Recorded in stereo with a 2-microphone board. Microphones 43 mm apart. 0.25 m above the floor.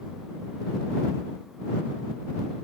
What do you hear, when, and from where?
Only background noise.